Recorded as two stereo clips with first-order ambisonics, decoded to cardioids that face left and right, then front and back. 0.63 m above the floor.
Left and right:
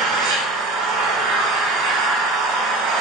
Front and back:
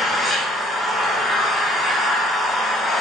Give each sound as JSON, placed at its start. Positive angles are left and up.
{"t": 0.0, "sound": "an engine running", "azimuth_deg": -80, "distance_m": 0.7}